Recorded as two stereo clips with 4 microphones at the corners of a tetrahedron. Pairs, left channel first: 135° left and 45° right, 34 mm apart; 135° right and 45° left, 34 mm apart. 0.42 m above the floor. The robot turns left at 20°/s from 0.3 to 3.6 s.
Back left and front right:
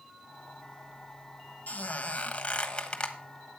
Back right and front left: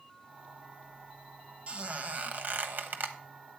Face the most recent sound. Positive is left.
turn(degrees=60)